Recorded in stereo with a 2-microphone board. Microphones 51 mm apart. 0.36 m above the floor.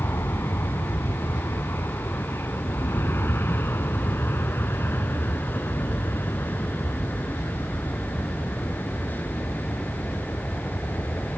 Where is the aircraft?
60° left (ahead or behind); by 11.4 s 35° left (ahead or behind).